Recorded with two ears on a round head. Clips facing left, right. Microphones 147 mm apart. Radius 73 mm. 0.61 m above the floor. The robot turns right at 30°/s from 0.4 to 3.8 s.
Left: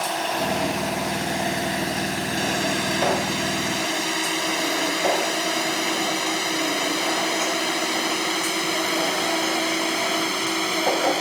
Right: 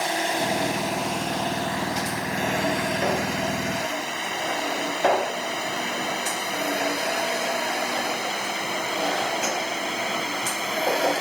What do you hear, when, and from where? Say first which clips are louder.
0.0 s a drone: even; 15° right (ahead or behind); by 11.2 s 70° left (ahead or behind)